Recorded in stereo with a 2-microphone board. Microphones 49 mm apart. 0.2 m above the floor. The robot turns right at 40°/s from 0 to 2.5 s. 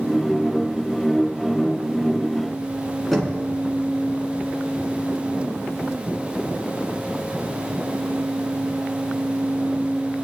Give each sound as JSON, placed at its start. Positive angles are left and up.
{"t": 3.1, "sound": "knocking", "side_deg": 5, "distance_m": 1.9}